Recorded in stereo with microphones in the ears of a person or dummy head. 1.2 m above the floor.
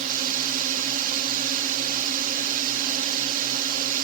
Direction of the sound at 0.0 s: 40° right (ahead or behind).